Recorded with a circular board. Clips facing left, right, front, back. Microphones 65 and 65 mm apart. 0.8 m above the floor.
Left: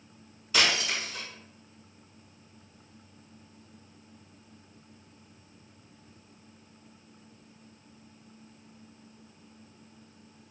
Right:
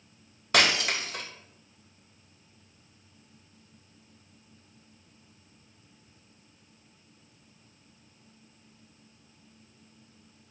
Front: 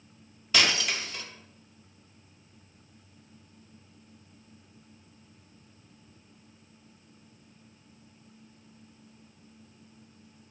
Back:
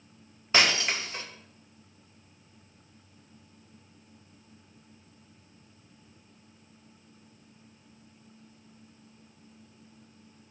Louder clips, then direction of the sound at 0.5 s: Right 3 dB, back 2 dB; 120° right.